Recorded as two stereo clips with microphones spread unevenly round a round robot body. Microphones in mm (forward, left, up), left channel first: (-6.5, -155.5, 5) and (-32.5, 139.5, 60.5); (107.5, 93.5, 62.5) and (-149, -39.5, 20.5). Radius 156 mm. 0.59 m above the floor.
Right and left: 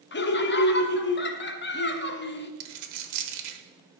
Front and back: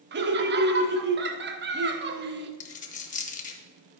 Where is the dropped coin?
95° left, 1.1 m.